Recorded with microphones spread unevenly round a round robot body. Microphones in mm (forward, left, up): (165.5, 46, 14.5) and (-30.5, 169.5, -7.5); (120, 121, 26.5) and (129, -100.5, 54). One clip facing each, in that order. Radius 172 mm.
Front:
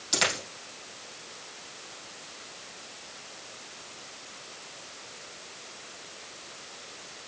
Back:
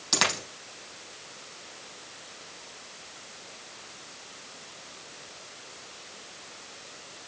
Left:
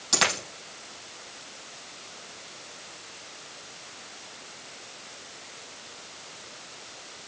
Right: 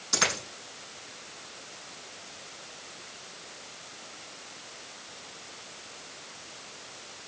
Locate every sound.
0.1 s a dropped coin: 120° left, 4.5 m